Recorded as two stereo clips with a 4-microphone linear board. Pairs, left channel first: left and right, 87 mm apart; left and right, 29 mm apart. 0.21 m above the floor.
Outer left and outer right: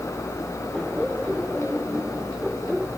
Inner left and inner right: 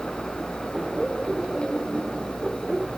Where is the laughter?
Centre (ahead or behind).